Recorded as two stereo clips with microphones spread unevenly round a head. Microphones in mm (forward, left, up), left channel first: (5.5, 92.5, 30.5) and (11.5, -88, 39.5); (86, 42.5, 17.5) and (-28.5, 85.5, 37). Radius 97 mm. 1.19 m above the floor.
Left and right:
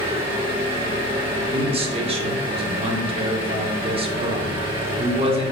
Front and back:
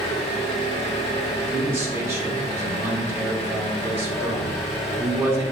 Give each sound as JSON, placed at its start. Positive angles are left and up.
{"t": 0.0, "sound": "an engine running", "azimuth_deg": -45, "distance_m": 0.9}
{"t": 1.5, "sound": "a man speaking", "azimuth_deg": -130, "distance_m": 0.6}